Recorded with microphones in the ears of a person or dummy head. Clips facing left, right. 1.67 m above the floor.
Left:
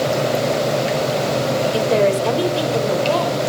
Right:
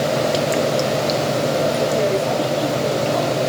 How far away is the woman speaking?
About 6 m.